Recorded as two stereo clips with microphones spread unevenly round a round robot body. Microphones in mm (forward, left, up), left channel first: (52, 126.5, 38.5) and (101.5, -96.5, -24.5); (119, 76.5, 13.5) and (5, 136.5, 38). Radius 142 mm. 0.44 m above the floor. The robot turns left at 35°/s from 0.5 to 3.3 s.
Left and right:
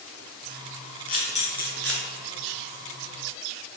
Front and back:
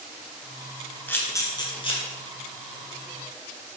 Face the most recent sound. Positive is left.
turn(degrees=-25)